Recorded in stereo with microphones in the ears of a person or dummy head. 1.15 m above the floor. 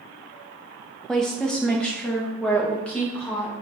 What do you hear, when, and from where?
1.1 s a woman speaking: centre (ahead or behind), 0.7 m; by 3.5 s 5° left (ahead or behind), 2 m